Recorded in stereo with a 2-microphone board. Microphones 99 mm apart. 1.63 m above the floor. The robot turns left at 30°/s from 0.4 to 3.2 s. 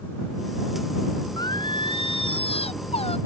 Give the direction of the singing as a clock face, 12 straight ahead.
7 o'clock.